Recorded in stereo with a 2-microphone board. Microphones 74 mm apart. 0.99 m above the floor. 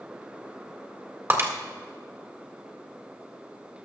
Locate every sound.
1.3 s breaking glass: 35° right (ahead or behind), 1.7 m